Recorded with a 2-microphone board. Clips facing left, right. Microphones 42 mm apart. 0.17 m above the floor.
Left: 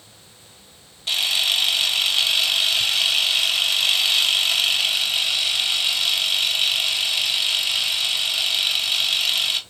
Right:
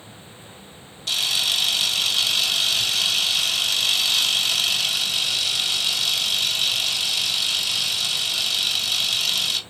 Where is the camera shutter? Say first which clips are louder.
Left 2 dB; 30° left (ahead or behind), 0.9 m.